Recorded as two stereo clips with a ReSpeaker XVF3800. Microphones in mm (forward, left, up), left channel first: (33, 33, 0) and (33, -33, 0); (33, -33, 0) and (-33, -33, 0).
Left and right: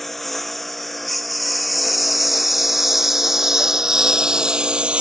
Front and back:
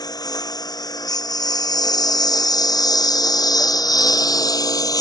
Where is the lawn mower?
5° left; by 5.0 s 15° right.